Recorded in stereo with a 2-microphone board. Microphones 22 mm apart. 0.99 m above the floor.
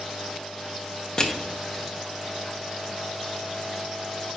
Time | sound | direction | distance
1.2 | crushing | 35° left (ahead or behind) | 0.9 m